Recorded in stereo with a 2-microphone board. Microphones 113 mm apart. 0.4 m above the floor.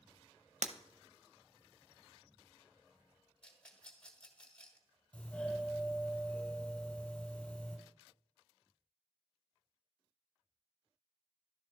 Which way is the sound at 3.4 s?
10° left (ahead or behind).